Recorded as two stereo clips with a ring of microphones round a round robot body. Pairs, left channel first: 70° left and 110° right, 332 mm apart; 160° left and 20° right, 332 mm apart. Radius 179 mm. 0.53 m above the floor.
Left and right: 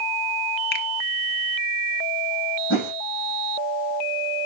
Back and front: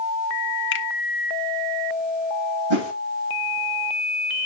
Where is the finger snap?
115° left, 1.1 m.